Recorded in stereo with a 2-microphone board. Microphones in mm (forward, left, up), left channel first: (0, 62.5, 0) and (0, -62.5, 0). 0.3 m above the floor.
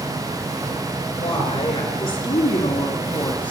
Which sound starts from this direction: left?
A woman speaking, at 1.2 s.